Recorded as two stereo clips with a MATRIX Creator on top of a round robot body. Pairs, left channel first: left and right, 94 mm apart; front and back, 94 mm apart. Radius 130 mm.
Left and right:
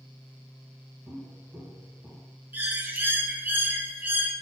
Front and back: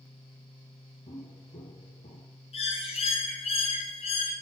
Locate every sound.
1.1 s footsteps: 25° right, 1.4 m; by 2.3 s 5° left, 0.7 m
2.5 s a bird: 20° right, 0.8 m